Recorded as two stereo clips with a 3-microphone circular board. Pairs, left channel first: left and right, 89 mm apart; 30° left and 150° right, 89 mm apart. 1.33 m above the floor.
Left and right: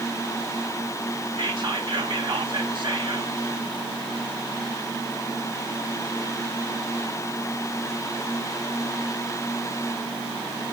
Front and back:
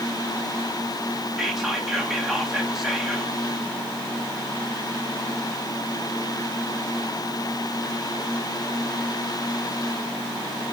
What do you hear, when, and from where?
1.4 s whispering: 70° right, 2 m